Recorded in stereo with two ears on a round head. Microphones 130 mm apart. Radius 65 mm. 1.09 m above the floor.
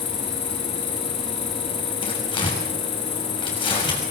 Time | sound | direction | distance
0.0 | an insect | 55° left (ahead or behind) | 9.5 m
2.0 | tearing paper | 35° left (ahead or behind) | 6.5 m